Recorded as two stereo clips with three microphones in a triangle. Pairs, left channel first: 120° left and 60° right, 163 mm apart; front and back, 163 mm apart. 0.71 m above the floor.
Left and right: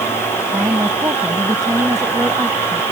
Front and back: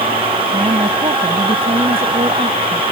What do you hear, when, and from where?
0.5 s a woman speaking: 130° right